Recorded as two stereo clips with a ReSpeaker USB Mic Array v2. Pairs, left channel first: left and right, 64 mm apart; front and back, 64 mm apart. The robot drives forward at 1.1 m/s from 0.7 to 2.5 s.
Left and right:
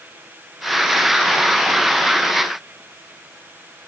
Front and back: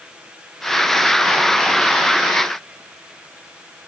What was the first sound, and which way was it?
Only background noise.